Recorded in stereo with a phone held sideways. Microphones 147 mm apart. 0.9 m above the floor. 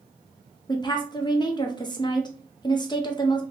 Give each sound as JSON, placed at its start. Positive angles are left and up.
{"t": 0.7, "sound": "a woman speaking", "side_deg": 30, "distance_m": 0.8}